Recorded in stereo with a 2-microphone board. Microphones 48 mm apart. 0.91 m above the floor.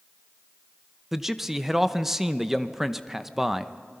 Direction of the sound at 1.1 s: 5° right (ahead or behind).